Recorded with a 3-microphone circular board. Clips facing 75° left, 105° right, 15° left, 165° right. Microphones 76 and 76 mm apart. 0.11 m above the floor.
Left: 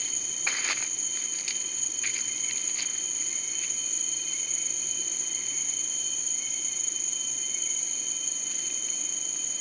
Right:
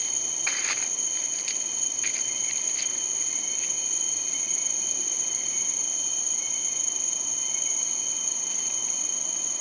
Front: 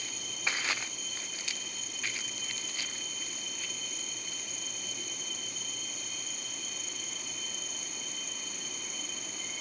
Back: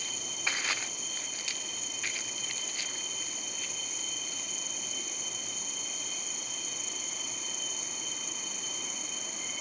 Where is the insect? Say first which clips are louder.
Even, even; 95° right.